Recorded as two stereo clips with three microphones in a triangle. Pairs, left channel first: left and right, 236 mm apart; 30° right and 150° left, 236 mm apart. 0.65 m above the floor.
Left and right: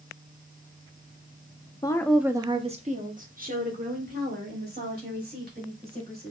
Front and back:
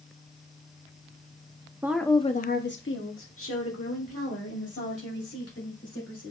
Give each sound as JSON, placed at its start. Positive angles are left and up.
{"t": 1.8, "sound": "a woman speaking", "azimuth_deg": 100, "distance_m": 0.6}